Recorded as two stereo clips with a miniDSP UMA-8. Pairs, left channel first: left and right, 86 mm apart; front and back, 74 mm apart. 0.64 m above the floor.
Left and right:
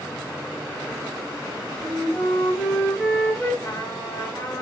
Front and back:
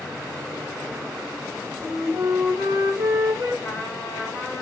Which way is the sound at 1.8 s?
145° left.